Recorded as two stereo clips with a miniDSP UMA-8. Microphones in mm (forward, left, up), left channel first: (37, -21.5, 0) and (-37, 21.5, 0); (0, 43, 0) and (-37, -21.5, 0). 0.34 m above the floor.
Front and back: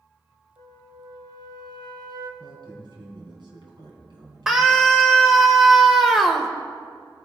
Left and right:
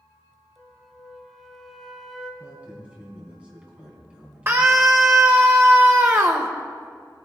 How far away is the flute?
About 1.8 m.